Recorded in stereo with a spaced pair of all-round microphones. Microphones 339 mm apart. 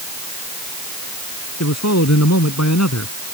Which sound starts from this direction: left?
A man speaking, at 1.6 s.